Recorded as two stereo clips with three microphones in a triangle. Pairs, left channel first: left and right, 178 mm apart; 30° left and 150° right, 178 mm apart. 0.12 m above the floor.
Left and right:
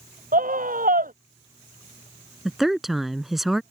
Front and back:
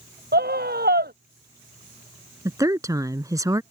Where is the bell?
No bell in this recording.